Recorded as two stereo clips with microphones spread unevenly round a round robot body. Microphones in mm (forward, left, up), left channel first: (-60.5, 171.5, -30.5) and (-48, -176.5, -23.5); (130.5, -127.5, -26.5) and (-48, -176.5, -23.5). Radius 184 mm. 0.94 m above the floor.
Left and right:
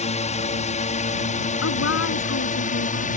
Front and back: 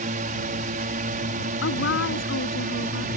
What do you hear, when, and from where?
0.0 s a drone: 160° left; by 3.2 s 155° left
1.6 s a woman speaking: 35° left